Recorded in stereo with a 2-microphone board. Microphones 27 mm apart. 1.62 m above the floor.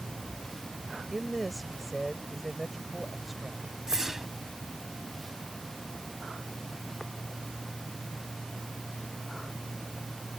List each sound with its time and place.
1.1 s a woman speaking: centre (ahead or behind)
3.9 s a whoosh: 20° right (ahead or behind)